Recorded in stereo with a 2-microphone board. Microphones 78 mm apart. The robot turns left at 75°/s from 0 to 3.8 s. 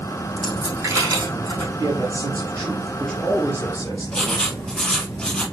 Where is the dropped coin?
5° left (ahead or behind), 3.5 m; by 1.7 s 80° right, 3.5 m.